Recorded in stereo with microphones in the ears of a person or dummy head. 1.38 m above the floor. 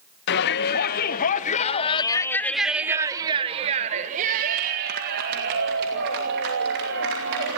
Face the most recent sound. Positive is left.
turn(degrees=-70)  # may be behind; listen again after turning